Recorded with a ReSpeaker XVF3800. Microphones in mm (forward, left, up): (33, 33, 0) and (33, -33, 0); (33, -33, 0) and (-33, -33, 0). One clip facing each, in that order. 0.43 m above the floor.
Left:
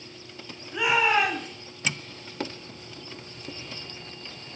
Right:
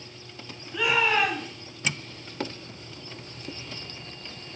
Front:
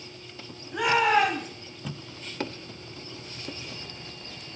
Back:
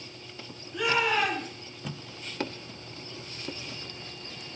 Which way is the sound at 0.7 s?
20° left.